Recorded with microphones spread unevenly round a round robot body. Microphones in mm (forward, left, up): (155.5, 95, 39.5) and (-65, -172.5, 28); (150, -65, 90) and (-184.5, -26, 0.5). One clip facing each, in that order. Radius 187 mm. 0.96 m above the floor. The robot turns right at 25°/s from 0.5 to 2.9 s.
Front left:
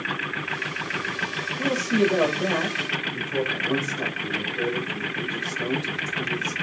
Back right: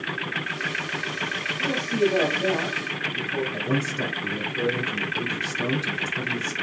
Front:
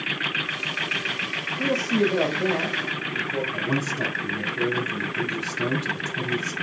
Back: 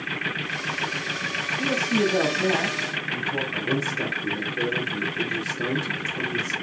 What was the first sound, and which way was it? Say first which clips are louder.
A man speaking: front left 1 dB, front 1 dB; 80° left.